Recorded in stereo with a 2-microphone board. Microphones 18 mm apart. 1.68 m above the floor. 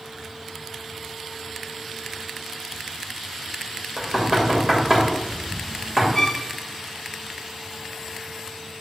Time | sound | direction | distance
4.0 | knocking | 40° right (ahead or behind) | 2.5 m
6.2 | a violin | 20° left (ahead or behind) | 0.7 m